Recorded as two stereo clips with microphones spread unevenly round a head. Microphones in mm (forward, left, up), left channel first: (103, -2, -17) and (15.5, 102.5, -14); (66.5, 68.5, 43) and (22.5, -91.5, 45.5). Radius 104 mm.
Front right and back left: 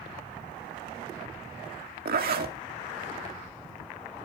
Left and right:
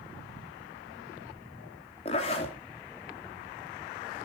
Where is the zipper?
135° left, 2.5 m.